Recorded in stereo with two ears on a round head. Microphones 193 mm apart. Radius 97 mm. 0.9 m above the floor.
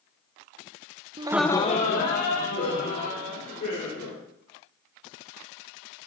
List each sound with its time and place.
1.2 s laughter: 25° right (ahead or behind), 0.6 m; by 4.2 s 45° left (ahead or behind), 4 m